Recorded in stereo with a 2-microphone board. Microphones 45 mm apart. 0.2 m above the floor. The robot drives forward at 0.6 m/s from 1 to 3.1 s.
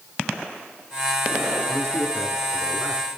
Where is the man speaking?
30° left (ahead or behind), 1.2 m; by 3.0 s 20° left (ahead or behind), 1.7 m.